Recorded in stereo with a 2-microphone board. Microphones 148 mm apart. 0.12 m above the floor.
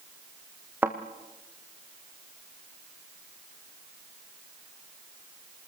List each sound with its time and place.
0.8 s a thud: 15° right (ahead or behind), 2 m